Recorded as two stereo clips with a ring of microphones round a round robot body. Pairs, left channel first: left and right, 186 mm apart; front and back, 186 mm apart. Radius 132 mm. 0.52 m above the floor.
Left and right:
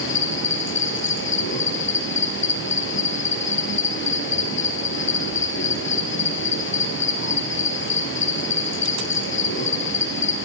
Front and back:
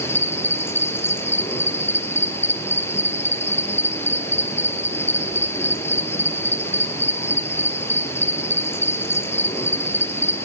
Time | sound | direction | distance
0.0 | an insect | 75° left | 4 m